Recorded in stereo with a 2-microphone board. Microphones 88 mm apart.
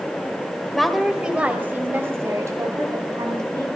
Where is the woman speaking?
5° left (ahead or behind), 1.8 m; by 3.7 s 45° right (ahead or behind), 4 m.